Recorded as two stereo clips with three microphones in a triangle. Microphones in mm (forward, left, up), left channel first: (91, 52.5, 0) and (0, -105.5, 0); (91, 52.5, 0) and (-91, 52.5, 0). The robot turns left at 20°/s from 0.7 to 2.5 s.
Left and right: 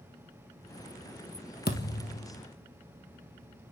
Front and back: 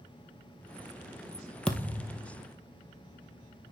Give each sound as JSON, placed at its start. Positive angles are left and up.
{"t": 1.7, "sound": "a thud", "azimuth_deg": 85, "distance_m": 1.5}